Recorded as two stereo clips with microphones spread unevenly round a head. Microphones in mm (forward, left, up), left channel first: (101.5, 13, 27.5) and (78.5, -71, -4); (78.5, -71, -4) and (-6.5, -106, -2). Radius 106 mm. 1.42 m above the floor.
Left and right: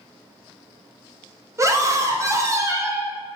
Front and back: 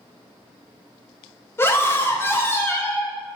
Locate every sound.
1.6 s a scream: 45° right, 1.6 m